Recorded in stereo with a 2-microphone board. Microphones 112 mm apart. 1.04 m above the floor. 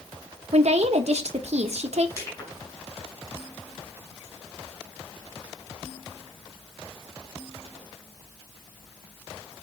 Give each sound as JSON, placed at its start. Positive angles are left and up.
{"t": 0.5, "sound": "a woman speaking", "side_deg": -75, "distance_m": 0.8}
{"t": 2.2, "sound": "crushing", "side_deg": 30, "distance_m": 5.5}